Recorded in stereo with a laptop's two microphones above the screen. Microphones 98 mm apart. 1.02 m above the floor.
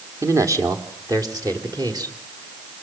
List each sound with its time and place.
0.2 s a man speaking: 30° right (ahead or behind), 2.5 m; by 2.1 s 40° right (ahead or behind), 5.5 m